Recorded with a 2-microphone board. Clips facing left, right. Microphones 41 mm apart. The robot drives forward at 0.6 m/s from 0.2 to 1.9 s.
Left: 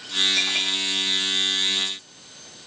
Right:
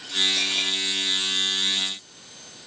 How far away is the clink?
About 8.5 m.